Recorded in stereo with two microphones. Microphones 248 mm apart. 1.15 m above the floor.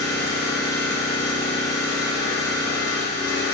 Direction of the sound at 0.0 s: 45° left (ahead or behind).